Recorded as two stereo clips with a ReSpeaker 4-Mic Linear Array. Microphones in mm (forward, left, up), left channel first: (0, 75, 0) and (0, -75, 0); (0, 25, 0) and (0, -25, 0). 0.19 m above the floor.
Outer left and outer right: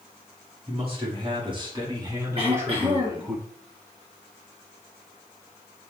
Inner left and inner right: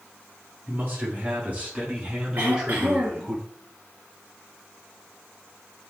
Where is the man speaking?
40° right (ahead or behind), 2.5 m; by 3.4 s 5° right (ahead or behind), 1.6 m.